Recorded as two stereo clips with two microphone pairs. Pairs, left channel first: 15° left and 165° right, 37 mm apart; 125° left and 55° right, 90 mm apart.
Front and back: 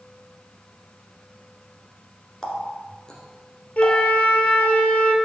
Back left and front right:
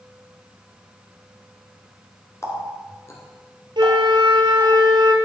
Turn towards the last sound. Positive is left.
turn(degrees=-30)